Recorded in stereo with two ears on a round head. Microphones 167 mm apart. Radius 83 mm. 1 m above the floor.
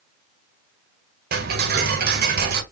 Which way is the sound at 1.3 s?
50° right (ahead or behind).